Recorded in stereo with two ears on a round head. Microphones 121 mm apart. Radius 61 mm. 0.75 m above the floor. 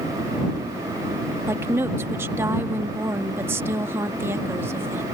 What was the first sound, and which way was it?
A woman speaking, 20° right (ahead or behind).